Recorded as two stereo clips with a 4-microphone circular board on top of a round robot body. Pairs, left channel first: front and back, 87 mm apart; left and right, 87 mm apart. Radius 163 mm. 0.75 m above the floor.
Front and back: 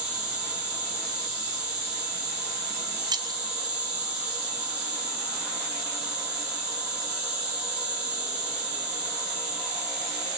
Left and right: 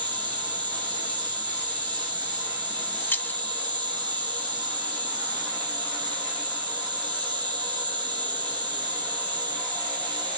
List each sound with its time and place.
0.0 s an insect: 105° right, 3 m
3.1 s keys jangling: 155° left, 0.7 m